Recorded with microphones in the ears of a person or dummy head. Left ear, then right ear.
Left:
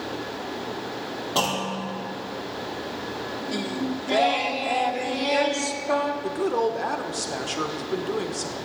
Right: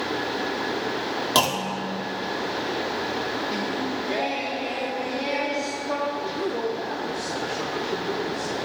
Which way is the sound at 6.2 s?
45° left (ahead or behind).